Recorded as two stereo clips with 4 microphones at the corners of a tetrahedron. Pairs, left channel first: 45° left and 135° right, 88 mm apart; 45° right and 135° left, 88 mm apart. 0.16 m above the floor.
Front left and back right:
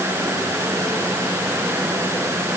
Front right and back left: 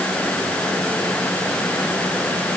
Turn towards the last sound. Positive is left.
No sound to turn to.